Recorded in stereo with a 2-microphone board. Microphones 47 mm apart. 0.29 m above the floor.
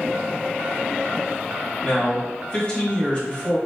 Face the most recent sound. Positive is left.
turn(degrees=25)  # may be behind; listen again after turning